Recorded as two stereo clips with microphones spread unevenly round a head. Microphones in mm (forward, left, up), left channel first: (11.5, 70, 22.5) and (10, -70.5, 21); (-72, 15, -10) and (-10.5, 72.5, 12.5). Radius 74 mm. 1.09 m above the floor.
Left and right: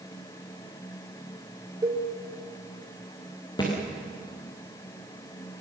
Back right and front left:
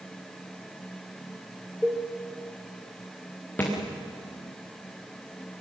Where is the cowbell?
25° right, 1.7 m.